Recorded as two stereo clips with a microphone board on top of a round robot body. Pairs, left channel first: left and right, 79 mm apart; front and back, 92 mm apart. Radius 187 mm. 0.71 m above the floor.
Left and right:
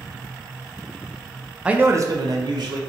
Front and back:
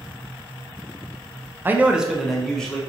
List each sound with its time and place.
1.6 s a man speaking: 150° right, 0.5 m; by 2.8 s 80° right, 1.0 m